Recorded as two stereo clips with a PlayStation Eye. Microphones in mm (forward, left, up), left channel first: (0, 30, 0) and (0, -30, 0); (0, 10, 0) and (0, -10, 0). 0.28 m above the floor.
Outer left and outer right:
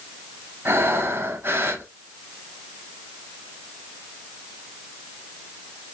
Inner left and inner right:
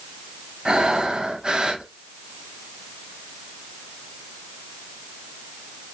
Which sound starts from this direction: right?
Breathing, at 0.7 s.